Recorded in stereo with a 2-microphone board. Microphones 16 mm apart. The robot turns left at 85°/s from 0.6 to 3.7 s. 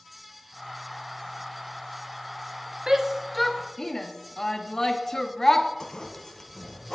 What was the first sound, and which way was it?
A shout, 25° right (ahead or behind).